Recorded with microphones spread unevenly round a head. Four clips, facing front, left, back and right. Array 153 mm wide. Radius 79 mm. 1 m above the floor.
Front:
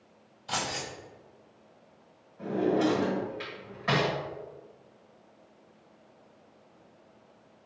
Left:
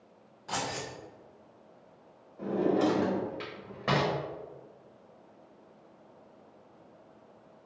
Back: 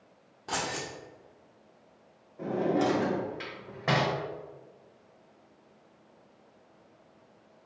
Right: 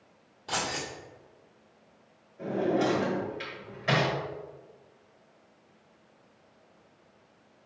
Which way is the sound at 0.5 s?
165° right.